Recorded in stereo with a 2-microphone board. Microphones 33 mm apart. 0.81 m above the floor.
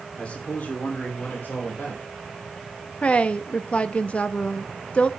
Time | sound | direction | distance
0.1 | a man speaking | 40° left (ahead or behind) | 2.5 m
3.0 | a woman speaking | 40° left (ahead or behind) | 0.8 m